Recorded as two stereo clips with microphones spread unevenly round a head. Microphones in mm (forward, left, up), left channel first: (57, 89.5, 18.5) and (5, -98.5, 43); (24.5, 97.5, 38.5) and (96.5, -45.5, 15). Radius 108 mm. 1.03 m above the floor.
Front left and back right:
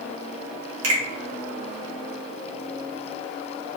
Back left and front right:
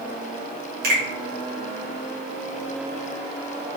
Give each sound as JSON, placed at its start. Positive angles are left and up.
{"t": 0.8, "sound": "a finger snap", "azimuth_deg": -105, "distance_m": 1.2}